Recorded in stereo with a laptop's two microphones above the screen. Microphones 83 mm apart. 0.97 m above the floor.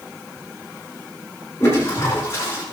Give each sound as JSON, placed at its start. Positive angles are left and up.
{"t": 1.6, "sound": "a toilet flushing", "side_deg": 35, "distance_m": 7.5}